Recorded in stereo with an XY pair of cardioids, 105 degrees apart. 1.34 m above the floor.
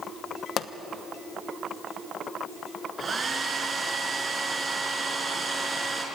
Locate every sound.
0.6 s a pop: 65° left, 1.1 m
3.0 s a hair dryer: 35° right, 4.5 m